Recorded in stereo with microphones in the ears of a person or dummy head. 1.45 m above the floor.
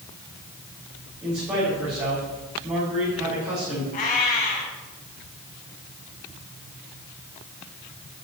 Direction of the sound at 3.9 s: 45° left (ahead or behind).